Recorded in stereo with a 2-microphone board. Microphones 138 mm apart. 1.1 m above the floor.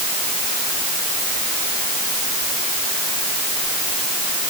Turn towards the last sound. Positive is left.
No sound to turn to.